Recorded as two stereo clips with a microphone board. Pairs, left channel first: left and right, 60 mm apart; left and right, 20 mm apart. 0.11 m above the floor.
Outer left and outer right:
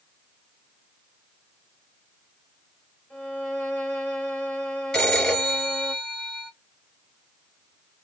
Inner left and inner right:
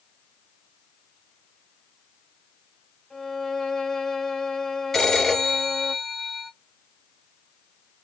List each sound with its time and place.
3.1 s a violin: 20° left (ahead or behind), 1.4 m
4.9 s a phone ringing: 10° left (ahead or behind), 1.6 m